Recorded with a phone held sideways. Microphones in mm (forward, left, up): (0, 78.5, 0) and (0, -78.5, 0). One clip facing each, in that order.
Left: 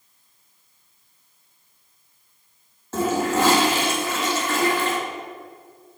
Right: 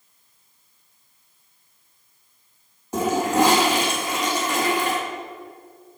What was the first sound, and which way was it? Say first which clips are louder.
A toilet flushing: right 1 dB; 15° right (ahead or behind).